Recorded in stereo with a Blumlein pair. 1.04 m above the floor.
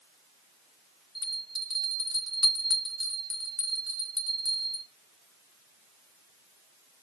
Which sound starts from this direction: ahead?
A bell, at 1.1 s.